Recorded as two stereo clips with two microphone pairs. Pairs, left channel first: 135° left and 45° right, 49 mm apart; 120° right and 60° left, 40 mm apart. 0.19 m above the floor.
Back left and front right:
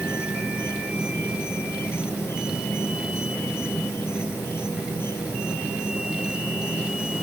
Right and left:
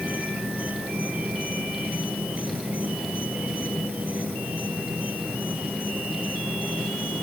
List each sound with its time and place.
0.0 s an insect: 105° left